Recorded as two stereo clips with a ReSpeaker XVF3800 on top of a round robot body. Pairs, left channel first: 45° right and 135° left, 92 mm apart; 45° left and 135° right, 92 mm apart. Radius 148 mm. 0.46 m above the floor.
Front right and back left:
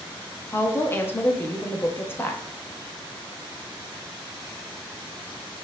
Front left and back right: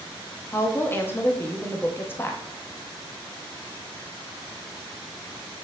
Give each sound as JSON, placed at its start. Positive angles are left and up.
{"t": 0.5, "sound": "a woman speaking", "azimuth_deg": 0, "distance_m": 0.9}